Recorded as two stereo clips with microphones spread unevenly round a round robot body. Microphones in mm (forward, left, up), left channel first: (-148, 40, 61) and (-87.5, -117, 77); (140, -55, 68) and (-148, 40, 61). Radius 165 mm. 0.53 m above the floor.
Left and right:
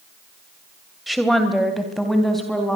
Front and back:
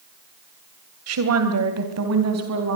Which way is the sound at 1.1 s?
160° right.